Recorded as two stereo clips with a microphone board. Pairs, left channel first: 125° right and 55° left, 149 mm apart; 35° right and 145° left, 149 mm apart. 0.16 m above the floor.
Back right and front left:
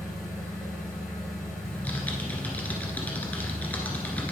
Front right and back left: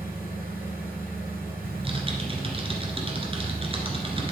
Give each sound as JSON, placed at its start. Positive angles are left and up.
{"t": 0.0, "sound": "an engine running", "azimuth_deg": 145, "distance_m": 3.0}
{"t": 1.6, "sound": "typing on a keyboard", "azimuth_deg": 160, "distance_m": 1.6}